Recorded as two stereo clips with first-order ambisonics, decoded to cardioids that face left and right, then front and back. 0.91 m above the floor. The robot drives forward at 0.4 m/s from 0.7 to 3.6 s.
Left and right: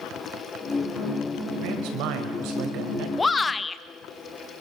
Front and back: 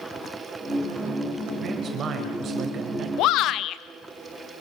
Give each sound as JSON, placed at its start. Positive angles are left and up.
{"t": 1.6, "sound": "a man speaking", "azimuth_deg": -115, "distance_m": 5.0}
{"t": 3.2, "sound": "a shout", "azimuth_deg": 15, "distance_m": 1.1}